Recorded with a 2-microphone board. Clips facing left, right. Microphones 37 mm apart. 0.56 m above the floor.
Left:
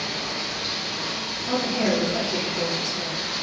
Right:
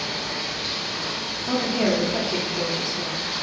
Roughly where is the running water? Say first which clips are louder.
Even; right.